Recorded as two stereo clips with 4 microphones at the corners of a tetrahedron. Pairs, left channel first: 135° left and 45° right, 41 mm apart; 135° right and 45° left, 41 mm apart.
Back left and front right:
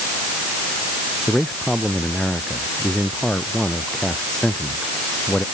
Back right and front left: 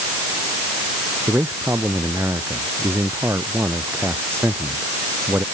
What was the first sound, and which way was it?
A man speaking, 60° left.